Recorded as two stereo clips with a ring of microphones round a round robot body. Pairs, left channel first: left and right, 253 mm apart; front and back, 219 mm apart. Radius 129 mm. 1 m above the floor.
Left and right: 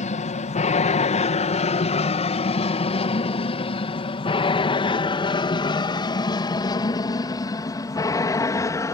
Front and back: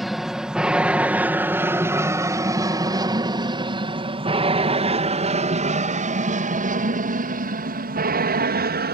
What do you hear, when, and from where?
0.0 s an aircraft: 90° left; by 9.0 s 165° left